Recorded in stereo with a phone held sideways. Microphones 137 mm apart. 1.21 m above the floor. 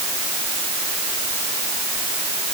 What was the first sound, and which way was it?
Only background noise.